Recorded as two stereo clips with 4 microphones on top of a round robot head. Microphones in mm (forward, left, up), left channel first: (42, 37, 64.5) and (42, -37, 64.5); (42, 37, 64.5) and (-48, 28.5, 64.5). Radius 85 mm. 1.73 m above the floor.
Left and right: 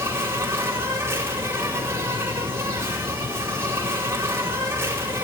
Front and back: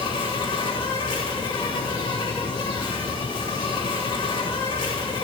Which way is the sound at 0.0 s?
40° right.